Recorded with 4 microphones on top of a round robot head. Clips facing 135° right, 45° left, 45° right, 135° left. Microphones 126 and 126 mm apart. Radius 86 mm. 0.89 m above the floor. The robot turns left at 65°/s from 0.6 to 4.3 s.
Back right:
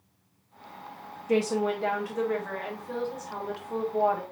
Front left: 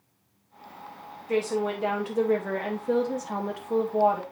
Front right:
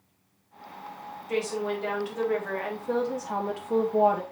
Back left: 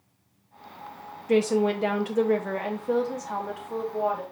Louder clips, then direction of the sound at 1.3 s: Back right 1 dB, back left 7 dB; 160° left.